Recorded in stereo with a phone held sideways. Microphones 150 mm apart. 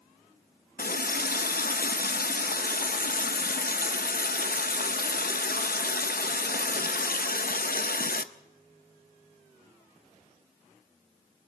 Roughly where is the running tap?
Left.